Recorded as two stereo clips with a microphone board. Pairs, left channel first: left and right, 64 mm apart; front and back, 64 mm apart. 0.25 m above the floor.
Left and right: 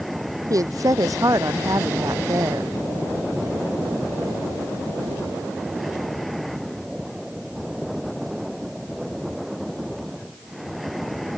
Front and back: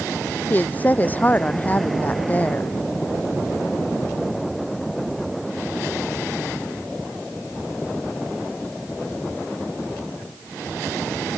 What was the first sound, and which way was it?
A woman speaking, 65° right.